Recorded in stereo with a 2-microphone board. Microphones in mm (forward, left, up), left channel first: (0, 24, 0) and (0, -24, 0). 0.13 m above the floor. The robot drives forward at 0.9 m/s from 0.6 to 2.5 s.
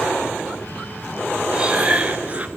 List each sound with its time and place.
1.5 s breathing: 20° right (ahead or behind), 1.7 m; by 2.5 s 30° right (ahead or behind), 1.2 m